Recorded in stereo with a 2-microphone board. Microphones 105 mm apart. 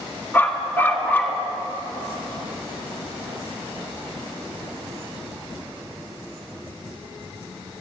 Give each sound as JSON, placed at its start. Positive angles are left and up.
{"t": 0.3, "sound": "a dog barking", "side_deg": 20, "distance_m": 1.1}